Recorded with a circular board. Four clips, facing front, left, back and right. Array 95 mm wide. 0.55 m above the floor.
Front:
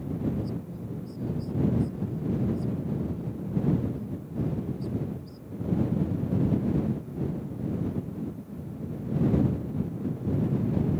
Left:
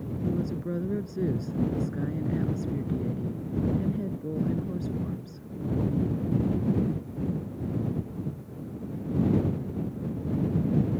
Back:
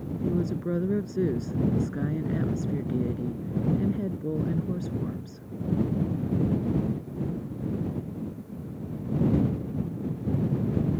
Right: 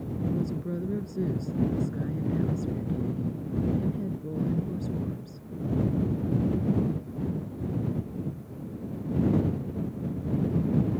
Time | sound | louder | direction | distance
0.2 | a woman speaking | left 1 dB, back 7 dB | 170° left | ?